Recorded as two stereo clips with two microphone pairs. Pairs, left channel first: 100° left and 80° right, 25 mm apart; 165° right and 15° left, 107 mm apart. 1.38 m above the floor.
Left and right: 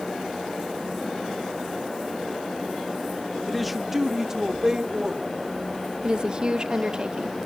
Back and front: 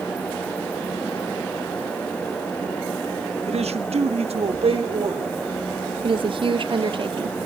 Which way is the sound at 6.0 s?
20° right.